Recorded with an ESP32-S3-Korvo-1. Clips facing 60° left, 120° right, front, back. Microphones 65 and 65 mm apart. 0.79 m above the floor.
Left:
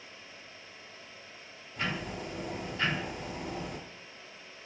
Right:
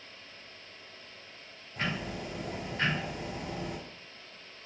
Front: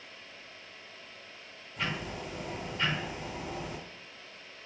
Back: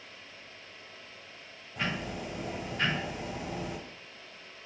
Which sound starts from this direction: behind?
Ticking, at 1.8 s.